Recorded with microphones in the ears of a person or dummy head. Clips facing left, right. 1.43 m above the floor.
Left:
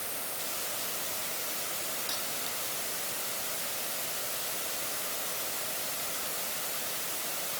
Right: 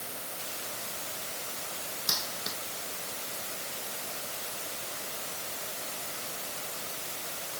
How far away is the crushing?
I don't hear crushing.